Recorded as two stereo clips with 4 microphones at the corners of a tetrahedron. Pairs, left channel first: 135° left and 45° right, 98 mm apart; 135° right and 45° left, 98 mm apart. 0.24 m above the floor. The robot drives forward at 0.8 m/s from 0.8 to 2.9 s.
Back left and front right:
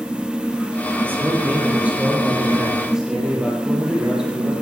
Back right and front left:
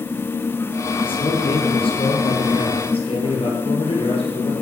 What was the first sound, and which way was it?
A man speaking, 115° right.